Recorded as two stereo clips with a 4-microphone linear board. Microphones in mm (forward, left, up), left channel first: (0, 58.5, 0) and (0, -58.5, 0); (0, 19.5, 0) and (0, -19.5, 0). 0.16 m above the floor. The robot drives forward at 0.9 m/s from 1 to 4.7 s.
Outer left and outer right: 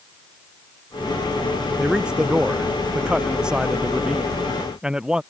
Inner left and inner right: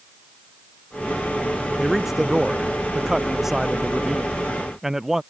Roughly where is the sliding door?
I don't hear a sliding door.